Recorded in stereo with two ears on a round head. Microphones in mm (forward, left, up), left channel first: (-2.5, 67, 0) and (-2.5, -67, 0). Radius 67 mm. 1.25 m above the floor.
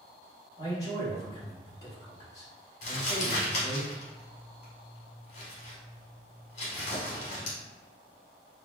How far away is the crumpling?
About 1.6 m.